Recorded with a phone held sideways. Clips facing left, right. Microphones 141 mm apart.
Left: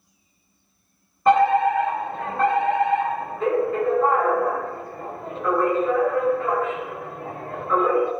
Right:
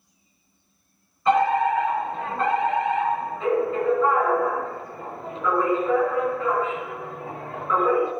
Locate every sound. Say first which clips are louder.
1.2 s a fire alarm: left 3 dB; 60° left (ahead or behind), 4.5 m